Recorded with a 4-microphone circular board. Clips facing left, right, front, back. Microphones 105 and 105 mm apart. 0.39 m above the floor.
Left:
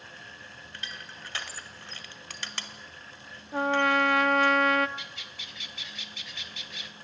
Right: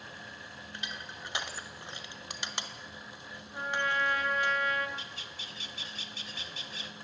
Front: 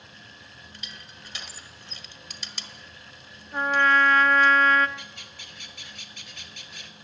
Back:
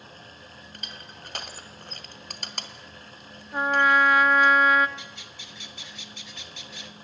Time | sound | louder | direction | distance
0.7 | crushing | right 1 dB, back 3 dB | 160° right | 1.5 m
3.5 | a trumpet | left 8 dB, even | 100° left | 0.6 m
5.0 | a bird | even, back 1 dB | 35° right | 1.0 m